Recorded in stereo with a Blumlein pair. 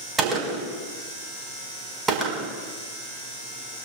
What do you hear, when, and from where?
0.2 s a gunshot: 20° right, 4.5 m